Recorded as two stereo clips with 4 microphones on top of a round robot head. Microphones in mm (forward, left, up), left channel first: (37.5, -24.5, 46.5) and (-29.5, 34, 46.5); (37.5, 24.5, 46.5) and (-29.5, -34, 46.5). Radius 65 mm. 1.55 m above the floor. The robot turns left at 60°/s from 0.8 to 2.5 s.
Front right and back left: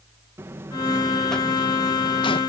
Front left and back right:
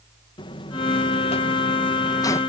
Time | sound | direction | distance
0.4 | a buzzer | 75° left | ?